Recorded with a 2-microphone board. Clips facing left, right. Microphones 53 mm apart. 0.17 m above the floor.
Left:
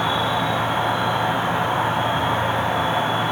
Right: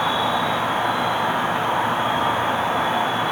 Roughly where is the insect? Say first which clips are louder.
Even; right.